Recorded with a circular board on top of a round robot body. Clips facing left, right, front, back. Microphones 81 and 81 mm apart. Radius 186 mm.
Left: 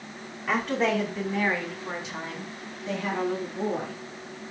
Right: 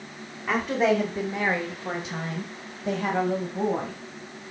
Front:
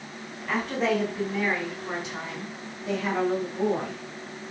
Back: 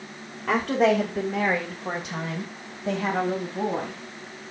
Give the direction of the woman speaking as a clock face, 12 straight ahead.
6 o'clock.